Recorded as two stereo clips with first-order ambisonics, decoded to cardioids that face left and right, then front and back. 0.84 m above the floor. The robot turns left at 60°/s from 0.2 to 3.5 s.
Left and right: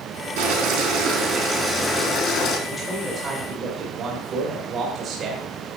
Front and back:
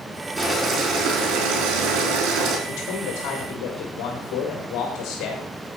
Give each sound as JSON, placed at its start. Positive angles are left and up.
{"t": 0.4, "sound": "boiling", "azimuth_deg": -95, "distance_m": 4.0}
{"t": 2.7, "sound": "a man speaking", "azimuth_deg": 15, "distance_m": 1.8}